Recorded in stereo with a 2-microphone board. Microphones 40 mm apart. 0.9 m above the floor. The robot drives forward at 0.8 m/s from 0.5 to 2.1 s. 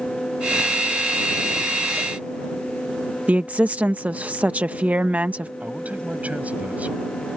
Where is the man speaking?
40° right (ahead or behind).